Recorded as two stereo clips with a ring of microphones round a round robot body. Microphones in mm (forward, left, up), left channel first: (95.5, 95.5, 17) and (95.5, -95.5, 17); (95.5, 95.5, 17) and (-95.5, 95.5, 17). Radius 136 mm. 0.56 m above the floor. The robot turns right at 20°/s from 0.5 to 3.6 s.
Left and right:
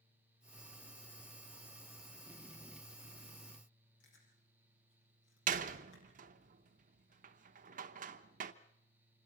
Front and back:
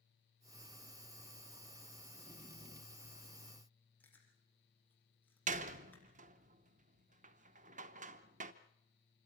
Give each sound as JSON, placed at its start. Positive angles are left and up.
{"t": 4.0, "sound": "chewing", "azimuth_deg": 80, "distance_m": 6.0}
{"t": 5.5, "sound": "a door slam", "azimuth_deg": -135, "distance_m": 0.8}